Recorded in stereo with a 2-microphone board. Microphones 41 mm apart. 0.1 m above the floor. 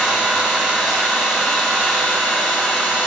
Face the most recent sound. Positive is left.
turn(degrees=0)  # may be behind; listen again after turning